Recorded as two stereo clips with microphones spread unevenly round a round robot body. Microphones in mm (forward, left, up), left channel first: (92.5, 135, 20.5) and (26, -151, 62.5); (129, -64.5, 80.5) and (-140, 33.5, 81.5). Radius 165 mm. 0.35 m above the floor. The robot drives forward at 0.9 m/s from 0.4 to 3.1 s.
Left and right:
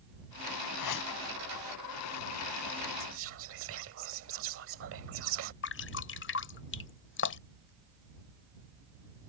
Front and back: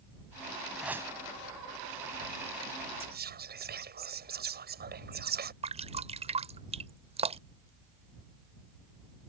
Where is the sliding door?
No sliding door in this recording.